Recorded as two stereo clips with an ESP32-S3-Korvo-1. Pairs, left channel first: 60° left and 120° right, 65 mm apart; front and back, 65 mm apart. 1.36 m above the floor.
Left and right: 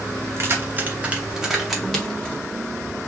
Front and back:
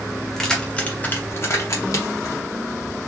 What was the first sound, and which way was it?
Keys jangling, 85° right.